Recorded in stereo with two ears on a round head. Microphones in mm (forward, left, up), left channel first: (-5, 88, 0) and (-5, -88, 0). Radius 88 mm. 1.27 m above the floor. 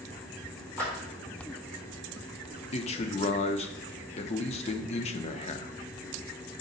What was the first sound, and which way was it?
A clap, 5° left (ahead or behind).